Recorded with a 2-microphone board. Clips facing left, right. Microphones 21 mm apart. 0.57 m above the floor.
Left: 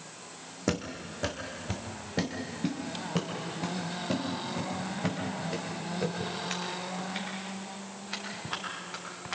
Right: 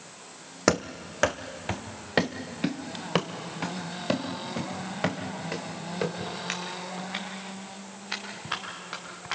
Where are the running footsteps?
60° right (ahead or behind), 1.3 m; by 9.3 s 70° right (ahead or behind), 9.5 m.